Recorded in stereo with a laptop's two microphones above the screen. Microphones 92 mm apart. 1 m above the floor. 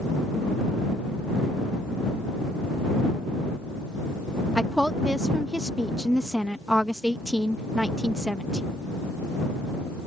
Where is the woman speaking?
5° right (ahead or behind).